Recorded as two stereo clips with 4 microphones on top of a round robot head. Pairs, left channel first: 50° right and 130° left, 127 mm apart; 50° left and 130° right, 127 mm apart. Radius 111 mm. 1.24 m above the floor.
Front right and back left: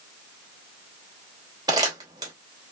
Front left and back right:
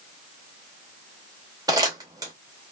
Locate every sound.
1.7 s crumpling: straight behind, 0.7 m